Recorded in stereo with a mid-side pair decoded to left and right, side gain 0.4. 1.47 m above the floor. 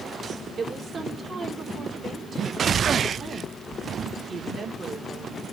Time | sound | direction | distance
0.6 | a woman speaking | 50° right | 4.5 m